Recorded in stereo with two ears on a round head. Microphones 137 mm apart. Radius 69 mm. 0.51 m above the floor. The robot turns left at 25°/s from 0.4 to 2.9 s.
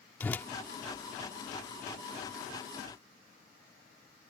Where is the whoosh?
15° left (ahead or behind).